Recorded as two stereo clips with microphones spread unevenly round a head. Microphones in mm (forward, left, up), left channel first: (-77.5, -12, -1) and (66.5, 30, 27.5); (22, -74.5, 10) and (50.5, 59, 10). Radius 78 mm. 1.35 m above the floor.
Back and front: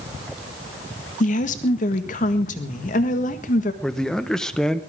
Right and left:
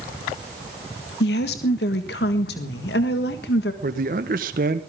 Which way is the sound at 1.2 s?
120° right.